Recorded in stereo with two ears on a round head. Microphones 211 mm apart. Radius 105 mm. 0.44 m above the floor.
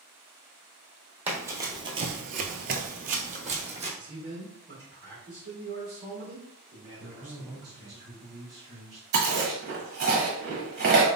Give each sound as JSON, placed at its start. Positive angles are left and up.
{"t": 1.3, "sound": "running footsteps", "side_deg": -10, "distance_m": 0.8}
{"t": 4.0, "sound": "a man speaking", "side_deg": -35, "distance_m": 1.2}
{"t": 7.0, "sound": "a man speaking", "side_deg": -15, "distance_m": 1.8}
{"t": 9.1, "sound": "chewing", "side_deg": -45, "distance_m": 1.1}